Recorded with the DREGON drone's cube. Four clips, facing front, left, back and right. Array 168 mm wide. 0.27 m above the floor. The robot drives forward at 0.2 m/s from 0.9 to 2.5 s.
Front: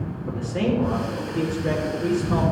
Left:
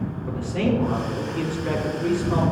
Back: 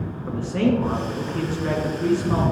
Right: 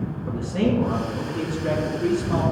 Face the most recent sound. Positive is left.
turn(degrees=-170)